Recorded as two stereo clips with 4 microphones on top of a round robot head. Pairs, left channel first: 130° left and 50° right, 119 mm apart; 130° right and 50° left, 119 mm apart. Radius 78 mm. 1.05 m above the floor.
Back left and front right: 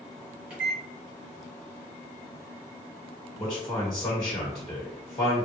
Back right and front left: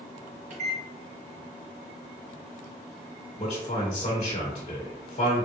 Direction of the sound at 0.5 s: 30° left.